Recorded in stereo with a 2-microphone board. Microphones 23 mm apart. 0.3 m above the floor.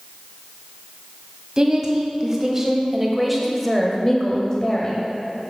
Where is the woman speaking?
30° right (ahead or behind), 1.6 m; by 5.1 s 35° left (ahead or behind), 1.1 m.